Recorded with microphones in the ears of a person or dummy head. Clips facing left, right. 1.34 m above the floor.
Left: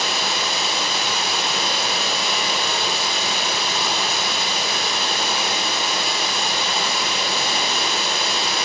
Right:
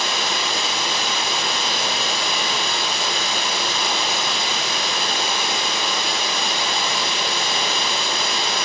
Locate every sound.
0.0 s running water: centre (ahead or behind), 1.5 m